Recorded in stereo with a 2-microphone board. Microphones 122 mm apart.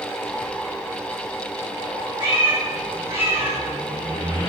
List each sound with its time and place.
2.2 s a cat meowing: 35° right (ahead or behind), 5 m; by 3.6 s 50° right (ahead or behind), 5 m